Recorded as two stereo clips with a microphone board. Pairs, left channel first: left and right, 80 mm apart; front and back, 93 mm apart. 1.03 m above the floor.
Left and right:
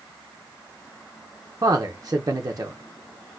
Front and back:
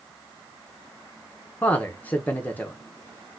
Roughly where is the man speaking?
Right.